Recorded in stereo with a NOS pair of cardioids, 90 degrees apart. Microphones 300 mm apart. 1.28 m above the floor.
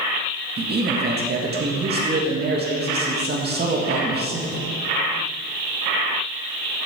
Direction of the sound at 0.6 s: 30° right.